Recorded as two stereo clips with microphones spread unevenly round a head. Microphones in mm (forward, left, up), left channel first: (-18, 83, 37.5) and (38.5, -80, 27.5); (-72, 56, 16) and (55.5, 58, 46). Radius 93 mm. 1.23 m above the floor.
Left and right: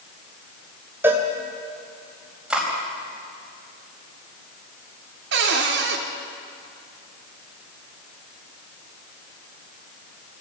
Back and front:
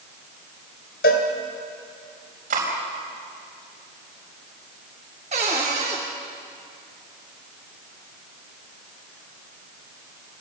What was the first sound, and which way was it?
A cowbell, 150° right.